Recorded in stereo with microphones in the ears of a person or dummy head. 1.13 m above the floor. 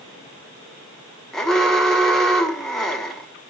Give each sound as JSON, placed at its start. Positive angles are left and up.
{"t": 1.3, "sound": "an alarm", "side_deg": 5, "distance_m": 0.8}